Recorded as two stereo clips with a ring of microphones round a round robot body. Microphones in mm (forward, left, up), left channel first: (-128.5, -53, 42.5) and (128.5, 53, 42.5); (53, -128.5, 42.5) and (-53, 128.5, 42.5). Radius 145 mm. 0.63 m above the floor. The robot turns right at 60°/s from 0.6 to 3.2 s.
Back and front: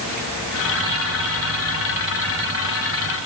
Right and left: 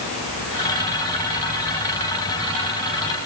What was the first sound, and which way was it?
Only background noise.